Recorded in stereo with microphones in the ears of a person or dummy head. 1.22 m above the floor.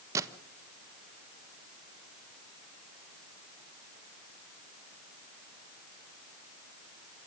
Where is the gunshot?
15° right (ahead or behind), 1.2 m.